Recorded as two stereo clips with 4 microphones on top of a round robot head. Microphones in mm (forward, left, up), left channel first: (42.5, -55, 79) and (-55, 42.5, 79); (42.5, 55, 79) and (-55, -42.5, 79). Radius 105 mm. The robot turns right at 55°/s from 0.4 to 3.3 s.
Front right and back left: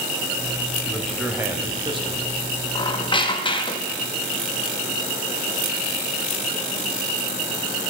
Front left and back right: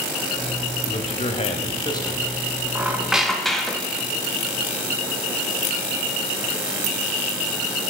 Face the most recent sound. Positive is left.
turn(degrees=-40)